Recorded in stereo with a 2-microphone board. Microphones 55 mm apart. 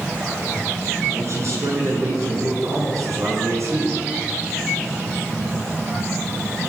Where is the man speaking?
55° right (ahead or behind), 9 m; by 4.0 s 65° right (ahead or behind), 8.5 m.